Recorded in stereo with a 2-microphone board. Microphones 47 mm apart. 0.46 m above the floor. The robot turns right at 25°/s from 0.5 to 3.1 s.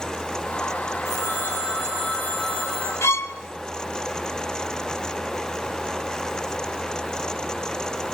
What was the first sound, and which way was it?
A phone ringing, 110° left.